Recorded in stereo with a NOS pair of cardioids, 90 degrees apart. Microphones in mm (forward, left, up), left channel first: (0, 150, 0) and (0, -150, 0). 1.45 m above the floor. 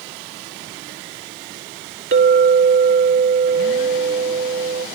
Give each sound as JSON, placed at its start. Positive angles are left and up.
{"t": 2.1, "sound": "a clink", "azimuth_deg": -40, "distance_m": 2.0}